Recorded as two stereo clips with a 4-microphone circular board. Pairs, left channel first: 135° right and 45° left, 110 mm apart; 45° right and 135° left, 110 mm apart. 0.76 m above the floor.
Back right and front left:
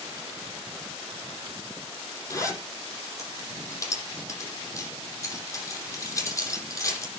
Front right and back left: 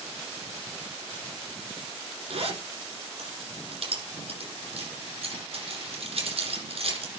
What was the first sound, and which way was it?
A zipper, 165° left.